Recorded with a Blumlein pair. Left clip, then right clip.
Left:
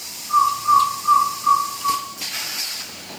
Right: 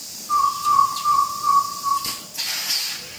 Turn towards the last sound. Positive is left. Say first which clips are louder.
# left 3 dB
turn(degrees=-35)